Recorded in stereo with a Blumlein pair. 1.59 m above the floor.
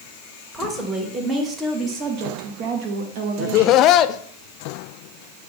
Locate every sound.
0.5 s a woman speaking: 5° right, 1.8 m; by 3.9 s 60° right, 1.9 m
3.4 s laughter: 35° left, 0.6 m